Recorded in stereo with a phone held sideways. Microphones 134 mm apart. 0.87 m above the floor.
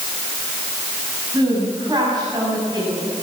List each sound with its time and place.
1.3 s a woman speaking: 30° right (ahead or behind), 6 m